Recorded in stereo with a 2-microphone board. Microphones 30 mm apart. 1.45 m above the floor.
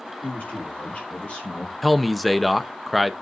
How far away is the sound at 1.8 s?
About 0.7 m.